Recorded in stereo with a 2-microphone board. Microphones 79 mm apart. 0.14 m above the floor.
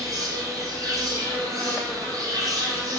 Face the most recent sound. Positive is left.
turn(degrees=-45)  # may be behind; listen again after turning